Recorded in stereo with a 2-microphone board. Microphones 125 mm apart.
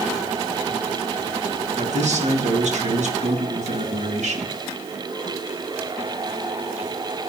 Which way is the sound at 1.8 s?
70° right (ahead or behind).